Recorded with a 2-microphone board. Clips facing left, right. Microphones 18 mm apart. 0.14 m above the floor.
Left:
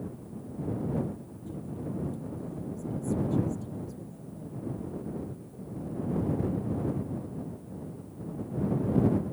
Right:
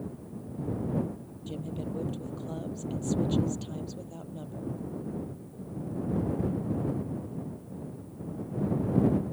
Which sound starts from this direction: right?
A woman speaking, at 1.5 s.